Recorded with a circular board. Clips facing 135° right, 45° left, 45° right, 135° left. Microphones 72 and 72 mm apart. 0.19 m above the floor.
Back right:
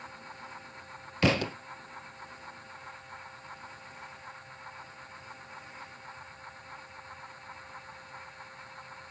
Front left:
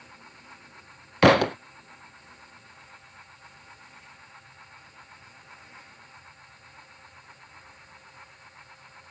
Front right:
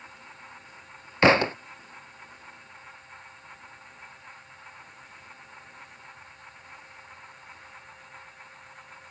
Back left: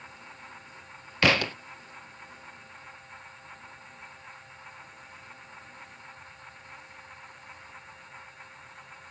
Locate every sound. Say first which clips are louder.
1.2 s a thud: front left 10 dB, front right 5 dB; 15° left